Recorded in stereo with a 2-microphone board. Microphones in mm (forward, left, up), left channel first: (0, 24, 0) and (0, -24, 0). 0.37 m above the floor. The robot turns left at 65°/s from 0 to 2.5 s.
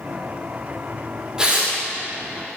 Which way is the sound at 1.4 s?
15° right (ahead or behind).